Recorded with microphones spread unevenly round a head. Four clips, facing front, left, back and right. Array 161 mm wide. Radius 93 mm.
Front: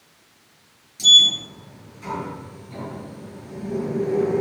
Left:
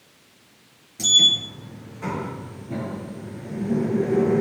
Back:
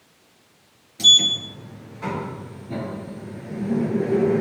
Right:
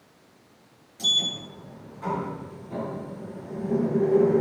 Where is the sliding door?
135° left, 8.5 m.